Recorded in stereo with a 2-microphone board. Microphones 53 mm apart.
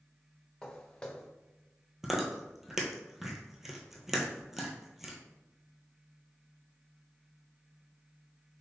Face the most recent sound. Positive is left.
turn(degrees=-5)  # may be behind; listen again after turning